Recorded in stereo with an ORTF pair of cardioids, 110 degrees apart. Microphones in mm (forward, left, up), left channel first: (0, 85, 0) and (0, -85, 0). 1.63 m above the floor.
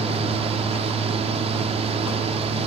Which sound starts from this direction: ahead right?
A fan, at 0.0 s.